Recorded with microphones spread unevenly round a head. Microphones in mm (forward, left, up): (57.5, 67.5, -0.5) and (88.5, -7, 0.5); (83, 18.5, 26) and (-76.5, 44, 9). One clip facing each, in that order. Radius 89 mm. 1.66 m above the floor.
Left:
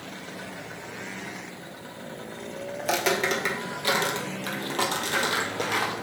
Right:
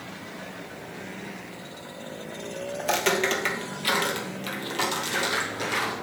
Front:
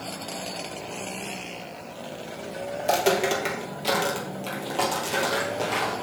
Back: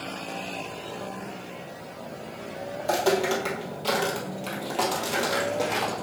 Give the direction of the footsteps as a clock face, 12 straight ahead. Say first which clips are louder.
Right 1 dB, front 1 dB; 11 o'clock.